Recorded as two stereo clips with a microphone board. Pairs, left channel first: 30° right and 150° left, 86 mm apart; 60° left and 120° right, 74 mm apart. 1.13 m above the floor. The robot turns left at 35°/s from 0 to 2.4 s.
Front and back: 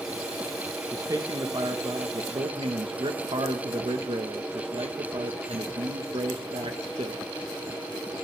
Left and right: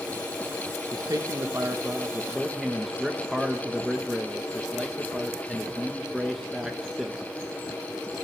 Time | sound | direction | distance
0.9 | a man speaking | 155° right | 0.9 m